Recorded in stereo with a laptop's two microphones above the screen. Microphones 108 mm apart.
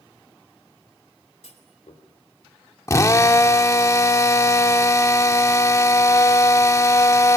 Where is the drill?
30° left (ahead or behind), 1.2 m.